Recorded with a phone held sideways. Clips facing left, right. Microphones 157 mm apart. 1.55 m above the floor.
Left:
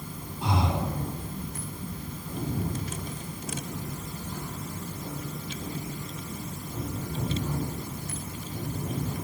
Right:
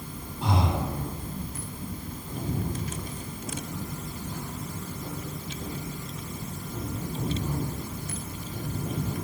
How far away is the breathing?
About 6.5 m.